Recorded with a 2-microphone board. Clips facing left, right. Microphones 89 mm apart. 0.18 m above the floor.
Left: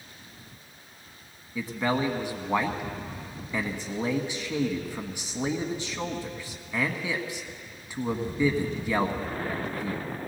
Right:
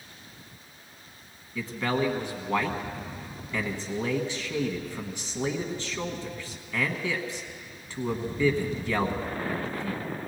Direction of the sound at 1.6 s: 10° left (ahead or behind).